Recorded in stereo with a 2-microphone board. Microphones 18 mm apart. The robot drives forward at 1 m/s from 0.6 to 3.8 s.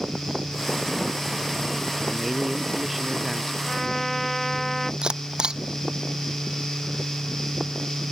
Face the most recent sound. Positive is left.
turn(degrees=-50)  # may be behind; listen again after turning